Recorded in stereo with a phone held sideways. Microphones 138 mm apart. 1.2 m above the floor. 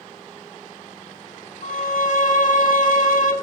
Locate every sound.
1.6 s a violin: 65° left (ahead or behind), 1.3 m